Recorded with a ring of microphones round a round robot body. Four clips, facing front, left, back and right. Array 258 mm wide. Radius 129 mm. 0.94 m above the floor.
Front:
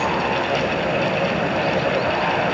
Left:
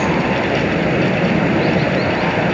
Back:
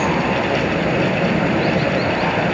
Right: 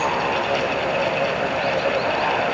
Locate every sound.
0.0 s running water: 110° left